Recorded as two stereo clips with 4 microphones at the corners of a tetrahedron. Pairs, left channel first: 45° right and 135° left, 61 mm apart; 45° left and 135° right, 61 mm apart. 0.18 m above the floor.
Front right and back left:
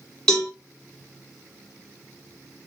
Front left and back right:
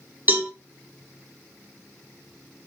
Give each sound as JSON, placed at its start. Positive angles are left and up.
{"t": 0.3, "sound": "a cowbell", "azimuth_deg": -115, "distance_m": 0.9}